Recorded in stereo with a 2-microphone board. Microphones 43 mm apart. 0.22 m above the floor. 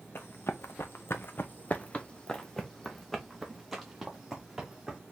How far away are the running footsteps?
About 0.9 m.